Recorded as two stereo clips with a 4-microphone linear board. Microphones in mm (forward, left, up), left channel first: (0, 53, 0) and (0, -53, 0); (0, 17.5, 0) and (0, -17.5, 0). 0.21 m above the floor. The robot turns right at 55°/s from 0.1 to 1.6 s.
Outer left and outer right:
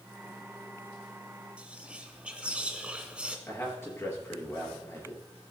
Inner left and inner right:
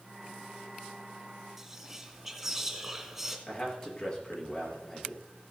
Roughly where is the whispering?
Centre.